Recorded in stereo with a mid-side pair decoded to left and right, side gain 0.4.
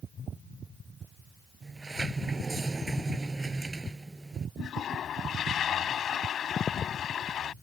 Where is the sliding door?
25° right.